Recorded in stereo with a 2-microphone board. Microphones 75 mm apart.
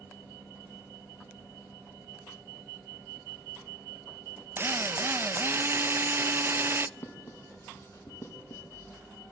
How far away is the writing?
About 5 m.